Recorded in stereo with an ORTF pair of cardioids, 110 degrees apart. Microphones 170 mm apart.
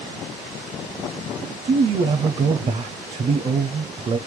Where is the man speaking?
35° right, 0.5 m.